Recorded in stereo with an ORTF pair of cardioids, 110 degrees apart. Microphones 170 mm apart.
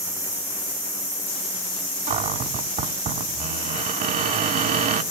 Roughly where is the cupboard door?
Ahead right.